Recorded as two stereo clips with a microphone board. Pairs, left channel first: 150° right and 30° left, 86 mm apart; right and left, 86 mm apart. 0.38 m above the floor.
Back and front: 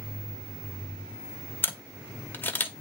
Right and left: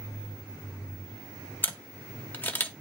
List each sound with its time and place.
1.6 s a camera shutter: 120° right, 1.4 m